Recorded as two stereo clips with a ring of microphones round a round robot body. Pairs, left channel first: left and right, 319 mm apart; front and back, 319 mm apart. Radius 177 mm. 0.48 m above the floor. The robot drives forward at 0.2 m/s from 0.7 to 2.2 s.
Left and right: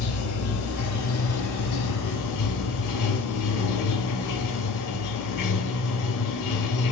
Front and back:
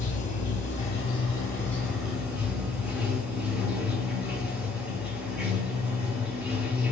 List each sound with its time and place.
0.0 s running water: 65° left, 0.7 m; by 6.9 s 95° left, 0.7 m